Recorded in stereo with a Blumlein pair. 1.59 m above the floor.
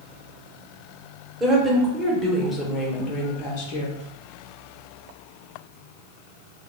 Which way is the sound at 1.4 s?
10° right.